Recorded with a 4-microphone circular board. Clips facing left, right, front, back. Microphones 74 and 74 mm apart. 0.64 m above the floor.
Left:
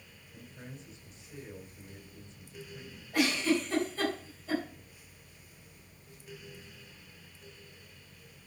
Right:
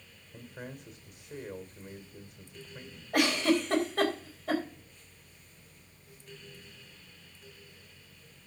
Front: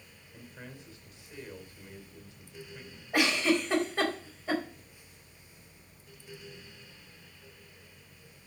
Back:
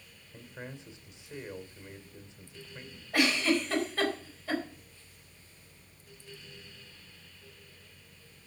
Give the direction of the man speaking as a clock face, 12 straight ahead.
4 o'clock.